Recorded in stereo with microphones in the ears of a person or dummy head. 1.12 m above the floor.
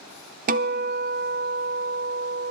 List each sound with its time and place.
0.5 s a guitar: 45° right (ahead or behind), 0.8 m